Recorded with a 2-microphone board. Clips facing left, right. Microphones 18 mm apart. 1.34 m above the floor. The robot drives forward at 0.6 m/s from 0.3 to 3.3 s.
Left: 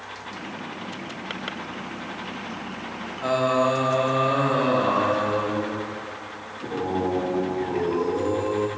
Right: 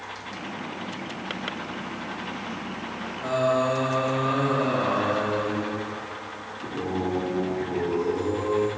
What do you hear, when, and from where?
3.2 s singing: 50° left (ahead or behind), 1.0 m